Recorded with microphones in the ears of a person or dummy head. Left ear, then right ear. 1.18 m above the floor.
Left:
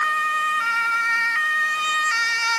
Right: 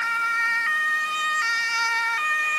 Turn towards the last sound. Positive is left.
No sound to turn to.